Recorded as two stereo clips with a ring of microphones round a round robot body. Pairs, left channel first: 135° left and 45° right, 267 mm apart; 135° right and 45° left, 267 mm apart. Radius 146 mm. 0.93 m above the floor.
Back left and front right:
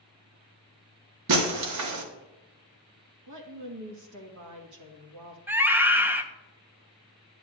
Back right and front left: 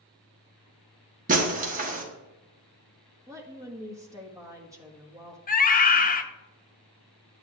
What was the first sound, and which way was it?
Breaking glass, 15° right.